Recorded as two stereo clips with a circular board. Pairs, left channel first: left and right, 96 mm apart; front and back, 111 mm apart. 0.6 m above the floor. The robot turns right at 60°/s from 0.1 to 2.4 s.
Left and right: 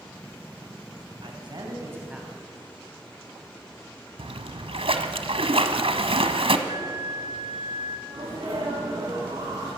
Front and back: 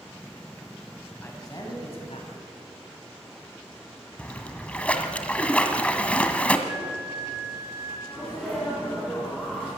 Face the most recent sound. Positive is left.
turn(degrees=-75)